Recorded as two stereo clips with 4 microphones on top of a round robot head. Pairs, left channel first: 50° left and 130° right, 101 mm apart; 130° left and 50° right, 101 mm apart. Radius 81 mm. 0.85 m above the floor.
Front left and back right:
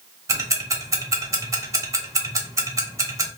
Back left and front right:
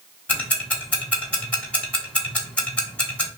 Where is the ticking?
160° right, 1.1 m.